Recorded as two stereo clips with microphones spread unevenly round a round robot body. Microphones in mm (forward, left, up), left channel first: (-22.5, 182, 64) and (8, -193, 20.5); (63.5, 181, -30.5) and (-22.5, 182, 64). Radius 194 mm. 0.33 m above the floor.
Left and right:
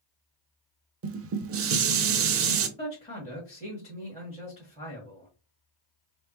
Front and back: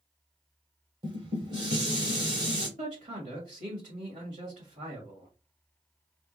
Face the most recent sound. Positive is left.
turn(degrees=170)